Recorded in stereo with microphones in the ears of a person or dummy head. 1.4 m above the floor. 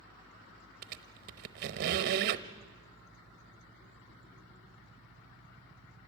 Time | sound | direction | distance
0.8 | a squeak | 45° right (ahead or behind) | 0.8 m